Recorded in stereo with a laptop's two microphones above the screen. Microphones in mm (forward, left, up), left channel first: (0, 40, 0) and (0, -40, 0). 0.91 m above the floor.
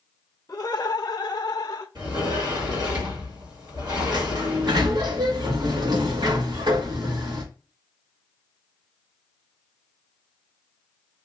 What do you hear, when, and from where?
0.5 s laughter: 30° left (ahead or behind), 0.7 m; by 1.9 s 40° left (ahead or behind), 0.8 m
1.9 s a sliding door: 60° right (ahead or behind), 2 m
4.1 s a sliding door: 60° right (ahead or behind), 1.2 m